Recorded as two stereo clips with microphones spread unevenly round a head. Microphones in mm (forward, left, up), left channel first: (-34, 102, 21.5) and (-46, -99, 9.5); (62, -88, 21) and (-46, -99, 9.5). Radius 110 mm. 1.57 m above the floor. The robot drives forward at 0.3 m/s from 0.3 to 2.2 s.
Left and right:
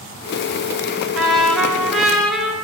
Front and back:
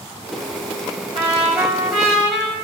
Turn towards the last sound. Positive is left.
turn(degrees=175)